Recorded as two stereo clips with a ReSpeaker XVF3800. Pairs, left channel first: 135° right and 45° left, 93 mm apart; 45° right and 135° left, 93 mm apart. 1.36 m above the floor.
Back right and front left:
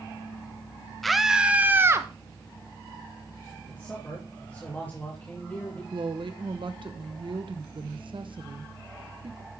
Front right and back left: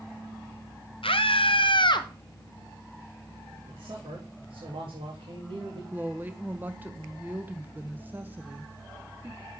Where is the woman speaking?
65° left, 1.1 m.